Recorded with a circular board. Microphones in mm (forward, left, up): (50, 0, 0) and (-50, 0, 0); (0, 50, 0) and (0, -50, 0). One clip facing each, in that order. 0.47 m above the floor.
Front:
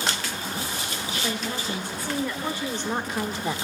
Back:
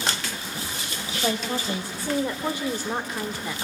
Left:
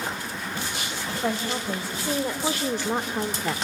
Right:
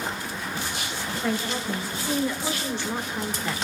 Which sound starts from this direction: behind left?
A woman speaking, at 1.1 s.